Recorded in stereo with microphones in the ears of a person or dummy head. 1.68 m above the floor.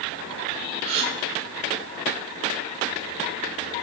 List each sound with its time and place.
0.8 s a gasp: 35° right (ahead or behind), 1.9 m